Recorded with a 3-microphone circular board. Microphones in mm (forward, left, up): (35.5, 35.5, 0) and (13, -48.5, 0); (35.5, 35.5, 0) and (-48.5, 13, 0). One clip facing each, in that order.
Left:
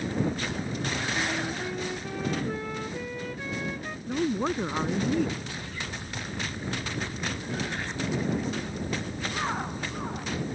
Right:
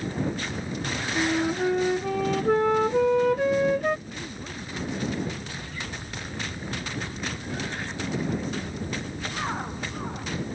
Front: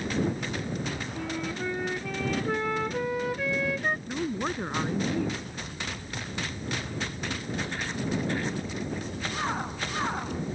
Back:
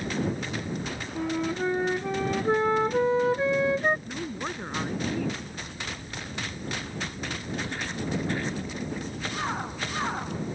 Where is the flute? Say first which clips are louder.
Right 6 dB, back 8 dB; 105° right.